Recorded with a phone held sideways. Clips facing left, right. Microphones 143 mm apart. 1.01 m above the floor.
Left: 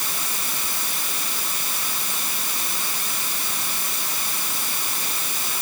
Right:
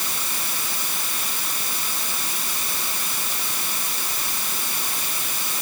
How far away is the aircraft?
I don't hear an aircraft.